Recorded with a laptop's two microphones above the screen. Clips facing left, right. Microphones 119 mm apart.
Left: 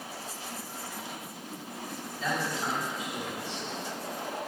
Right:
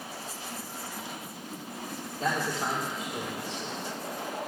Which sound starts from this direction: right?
A man speaking, at 2.2 s.